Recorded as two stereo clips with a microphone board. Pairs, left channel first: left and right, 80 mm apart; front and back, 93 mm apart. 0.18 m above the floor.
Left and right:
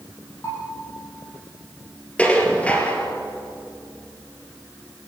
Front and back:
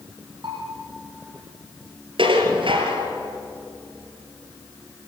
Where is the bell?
145° left, 7.5 m.